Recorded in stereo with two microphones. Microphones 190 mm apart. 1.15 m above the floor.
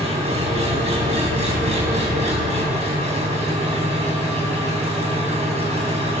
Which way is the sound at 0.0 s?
35° right (ahead or behind).